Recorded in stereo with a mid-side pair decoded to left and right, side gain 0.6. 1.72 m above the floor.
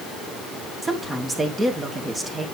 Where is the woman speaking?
20° right, 2.5 m.